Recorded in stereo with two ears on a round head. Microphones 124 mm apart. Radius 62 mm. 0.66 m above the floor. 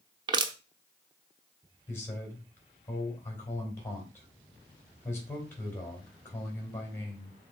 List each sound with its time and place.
0.3 s crushing: 35° right (ahead or behind), 0.8 m
1.9 s a man speaking: 15° left (ahead or behind), 3.5 m